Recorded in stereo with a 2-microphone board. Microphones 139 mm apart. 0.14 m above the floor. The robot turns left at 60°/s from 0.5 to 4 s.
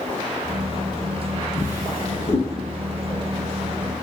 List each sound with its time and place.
1.6 s a drawer: 20° left (ahead or behind), 1.3 m; by 2.5 s 55° left (ahead or behind), 1.3 m